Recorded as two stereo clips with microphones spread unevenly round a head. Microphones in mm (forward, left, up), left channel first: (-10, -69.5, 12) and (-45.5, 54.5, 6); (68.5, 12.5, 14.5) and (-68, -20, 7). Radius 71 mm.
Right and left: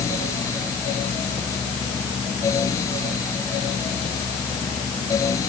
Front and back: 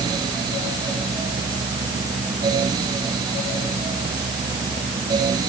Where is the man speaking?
I don't hear a man speaking.